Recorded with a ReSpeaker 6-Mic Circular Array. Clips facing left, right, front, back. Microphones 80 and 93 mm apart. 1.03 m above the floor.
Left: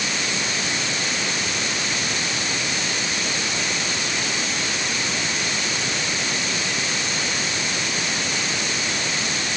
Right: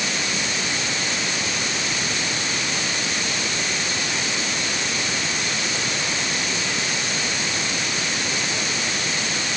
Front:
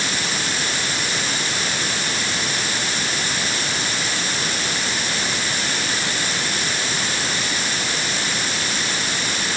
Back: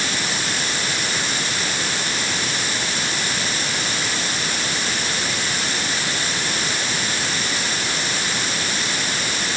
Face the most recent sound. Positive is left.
No sound to turn to.